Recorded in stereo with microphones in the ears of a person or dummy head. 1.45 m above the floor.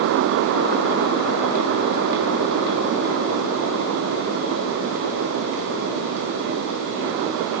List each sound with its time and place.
Only background noise.